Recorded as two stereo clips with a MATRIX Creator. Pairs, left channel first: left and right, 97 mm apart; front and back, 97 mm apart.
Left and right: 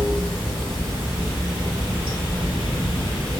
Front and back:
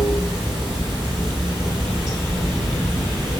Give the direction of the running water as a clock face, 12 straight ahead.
6 o'clock.